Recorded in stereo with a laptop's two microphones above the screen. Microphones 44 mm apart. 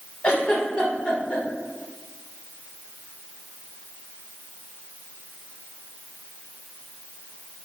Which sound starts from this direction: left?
A giggle, at 0.2 s.